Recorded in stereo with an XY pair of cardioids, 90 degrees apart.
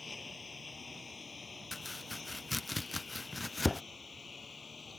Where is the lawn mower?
35° left; by 5.0 s 40° left.